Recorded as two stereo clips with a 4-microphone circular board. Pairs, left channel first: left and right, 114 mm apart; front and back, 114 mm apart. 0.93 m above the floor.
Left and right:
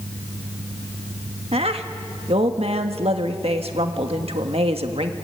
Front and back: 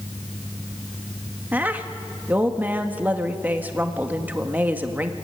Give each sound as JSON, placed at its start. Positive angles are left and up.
{"t": 1.5, "sound": "a woman speaking", "azimuth_deg": -105, "distance_m": 1.5}